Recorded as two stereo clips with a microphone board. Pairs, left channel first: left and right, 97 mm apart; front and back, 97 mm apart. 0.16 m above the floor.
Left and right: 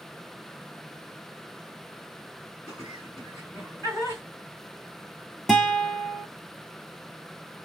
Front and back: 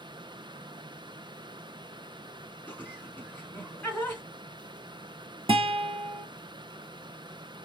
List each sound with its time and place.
2.7 s laughter: 60° left, 2 m
5.5 s a guitar: 175° left, 0.7 m